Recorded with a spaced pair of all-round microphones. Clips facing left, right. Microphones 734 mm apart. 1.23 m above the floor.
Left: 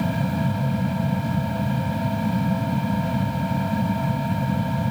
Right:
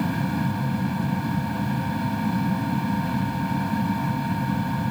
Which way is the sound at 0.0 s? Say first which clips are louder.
Left 1 dB; 15° left (ahead or behind).